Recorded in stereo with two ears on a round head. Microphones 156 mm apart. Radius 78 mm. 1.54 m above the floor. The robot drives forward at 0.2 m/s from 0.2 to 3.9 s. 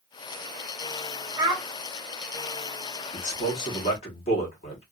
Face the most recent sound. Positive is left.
turn(degrees=40)  # may be behind; listen again after turning